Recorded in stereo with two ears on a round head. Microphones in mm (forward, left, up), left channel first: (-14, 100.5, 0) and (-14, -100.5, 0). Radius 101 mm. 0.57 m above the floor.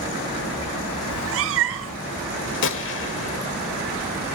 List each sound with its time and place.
1.1 s a cat meowing: 70° right (ahead or behind), 1.0 m
2.6 s a gunshot: 55° left (ahead or behind), 1.3 m